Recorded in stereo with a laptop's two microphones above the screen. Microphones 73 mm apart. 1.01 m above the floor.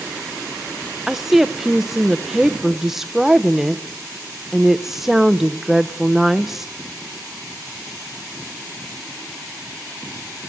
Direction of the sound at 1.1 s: 5° right (ahead or behind).